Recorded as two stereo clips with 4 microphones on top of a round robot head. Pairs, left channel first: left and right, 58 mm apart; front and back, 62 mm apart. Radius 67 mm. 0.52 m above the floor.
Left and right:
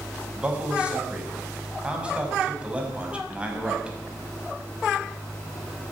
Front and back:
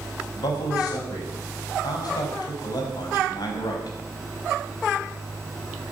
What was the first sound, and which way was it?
A man speaking, 20° right.